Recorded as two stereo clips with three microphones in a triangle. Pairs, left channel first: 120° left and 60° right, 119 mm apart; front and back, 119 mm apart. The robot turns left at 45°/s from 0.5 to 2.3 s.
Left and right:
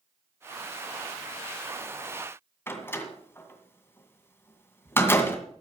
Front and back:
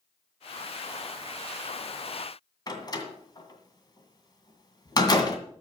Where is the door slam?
50° left, 2 m.